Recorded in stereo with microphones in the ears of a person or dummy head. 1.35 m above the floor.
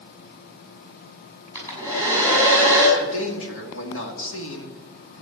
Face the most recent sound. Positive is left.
turn(degrees=75)  # may be behind; listen again after turning